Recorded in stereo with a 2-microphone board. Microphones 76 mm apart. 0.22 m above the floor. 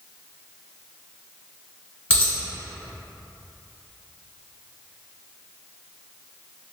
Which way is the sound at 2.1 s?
15° right (ahead or behind).